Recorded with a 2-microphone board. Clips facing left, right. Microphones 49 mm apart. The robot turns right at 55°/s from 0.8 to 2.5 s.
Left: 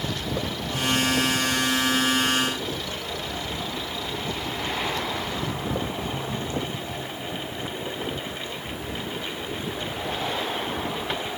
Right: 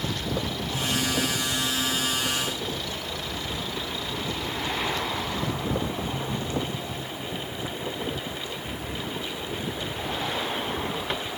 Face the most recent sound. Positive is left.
No sound to turn to.